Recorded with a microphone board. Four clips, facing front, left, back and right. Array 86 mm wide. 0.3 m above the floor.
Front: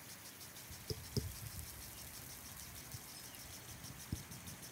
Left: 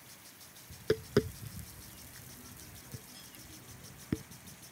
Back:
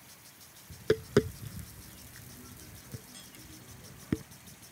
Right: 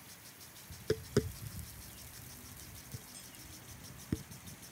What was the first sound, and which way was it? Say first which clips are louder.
Tapping: left 4 dB, back 20 dB; 160° left.